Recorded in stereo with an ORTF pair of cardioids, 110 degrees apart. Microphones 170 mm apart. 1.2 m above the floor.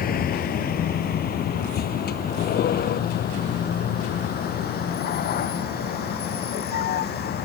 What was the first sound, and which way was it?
A vehicle, 60° left.